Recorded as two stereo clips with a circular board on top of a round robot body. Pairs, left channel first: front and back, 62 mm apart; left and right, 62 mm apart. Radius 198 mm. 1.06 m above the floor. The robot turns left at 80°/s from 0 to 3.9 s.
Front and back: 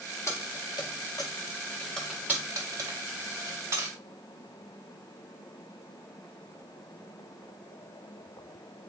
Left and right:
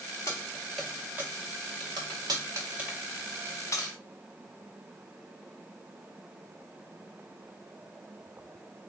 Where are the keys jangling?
50° left, 0.6 m; by 3.9 s 120° left, 0.6 m.